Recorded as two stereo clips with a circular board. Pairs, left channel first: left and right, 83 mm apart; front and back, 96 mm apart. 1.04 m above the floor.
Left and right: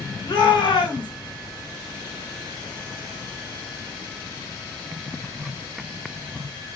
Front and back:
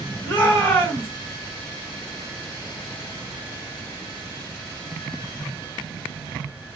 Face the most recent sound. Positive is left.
turn(degrees=65)